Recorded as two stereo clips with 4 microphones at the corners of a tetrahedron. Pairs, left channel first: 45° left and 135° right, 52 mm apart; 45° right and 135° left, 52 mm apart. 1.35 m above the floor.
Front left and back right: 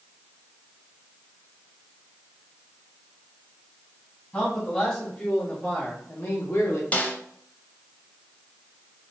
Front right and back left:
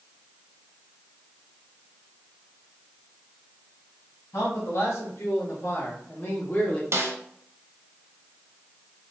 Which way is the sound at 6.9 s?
105° left.